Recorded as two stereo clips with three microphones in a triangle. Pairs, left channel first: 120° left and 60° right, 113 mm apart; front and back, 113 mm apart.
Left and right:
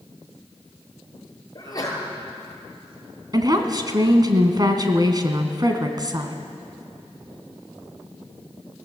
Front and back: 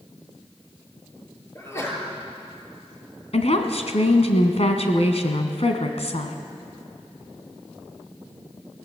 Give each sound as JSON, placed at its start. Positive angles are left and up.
{"t": 1.6, "sound": "a sneeze", "azimuth_deg": 65, "distance_m": 6.5}
{"t": 3.3, "sound": "a woman speaking", "azimuth_deg": -10, "distance_m": 2.5}